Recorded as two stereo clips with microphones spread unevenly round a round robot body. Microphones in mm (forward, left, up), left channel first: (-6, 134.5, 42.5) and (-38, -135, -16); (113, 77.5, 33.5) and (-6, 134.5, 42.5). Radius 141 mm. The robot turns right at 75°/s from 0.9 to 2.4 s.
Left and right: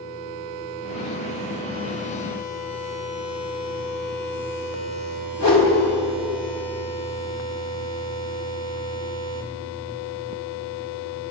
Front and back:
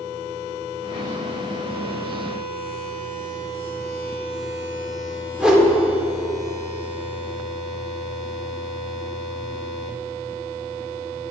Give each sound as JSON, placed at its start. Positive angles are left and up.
{"t": 5.4, "sound": "a whoosh", "azimuth_deg": 70, "distance_m": 1.8}